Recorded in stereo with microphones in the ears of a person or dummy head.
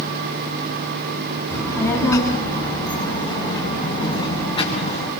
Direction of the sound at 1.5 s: 10° left (ahead or behind).